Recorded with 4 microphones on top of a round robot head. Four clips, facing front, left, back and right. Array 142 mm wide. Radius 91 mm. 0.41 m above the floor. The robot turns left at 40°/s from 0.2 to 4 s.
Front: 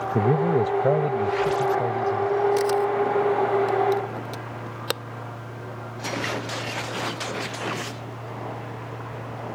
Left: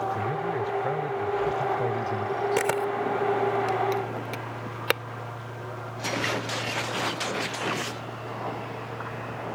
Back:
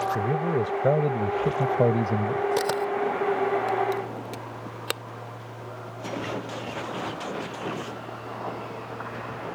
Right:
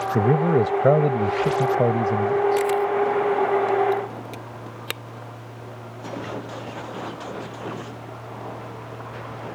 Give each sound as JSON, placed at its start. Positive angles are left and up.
{"t": 0.1, "sound": "a man speaking", "azimuth_deg": -65}
{"t": 2.6, "sound": "a camera shutter", "azimuth_deg": 125}